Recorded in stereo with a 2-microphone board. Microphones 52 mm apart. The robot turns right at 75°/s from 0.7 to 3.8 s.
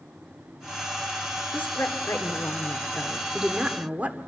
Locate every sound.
1.5 s a woman speaking: 45° left, 1.7 m; by 4.2 s 145° right, 1.7 m